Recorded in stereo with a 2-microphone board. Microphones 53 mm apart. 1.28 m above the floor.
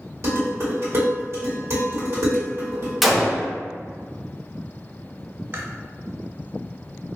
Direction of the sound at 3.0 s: 5° right (ahead or behind).